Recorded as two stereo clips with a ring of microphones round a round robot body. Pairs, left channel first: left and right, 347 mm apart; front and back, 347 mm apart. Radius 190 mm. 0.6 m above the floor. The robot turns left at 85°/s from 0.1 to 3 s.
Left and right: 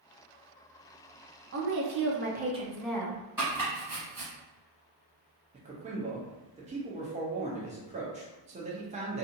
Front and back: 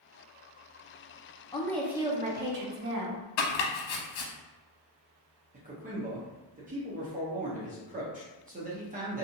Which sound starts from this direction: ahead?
Chopping, at 3.4 s.